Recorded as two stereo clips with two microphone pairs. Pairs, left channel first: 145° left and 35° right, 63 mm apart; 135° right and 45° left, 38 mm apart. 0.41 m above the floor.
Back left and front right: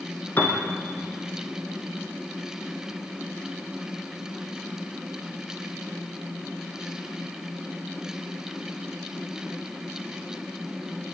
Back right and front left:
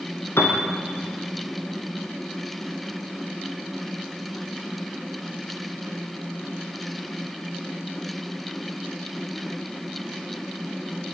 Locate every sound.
0.4 s a piano: 155° right, 3.5 m